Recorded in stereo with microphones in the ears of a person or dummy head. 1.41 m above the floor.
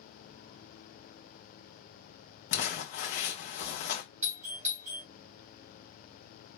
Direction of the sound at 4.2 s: 40° right (ahead or behind).